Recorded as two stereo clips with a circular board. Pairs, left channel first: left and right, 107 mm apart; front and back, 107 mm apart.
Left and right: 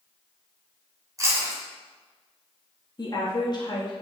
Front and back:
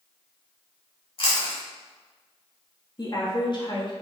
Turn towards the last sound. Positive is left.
turn(degrees=45)